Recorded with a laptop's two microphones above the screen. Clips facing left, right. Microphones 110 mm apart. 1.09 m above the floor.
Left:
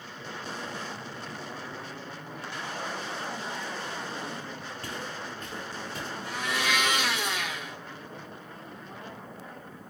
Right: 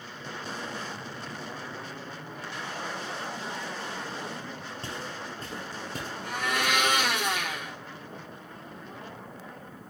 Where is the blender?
50° right (ahead or behind), 0.9 m.